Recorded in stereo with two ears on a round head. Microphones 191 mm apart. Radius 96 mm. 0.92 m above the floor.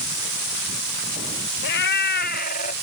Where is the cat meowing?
55° left (ahead or behind); by 2.7 s 35° left (ahead or behind).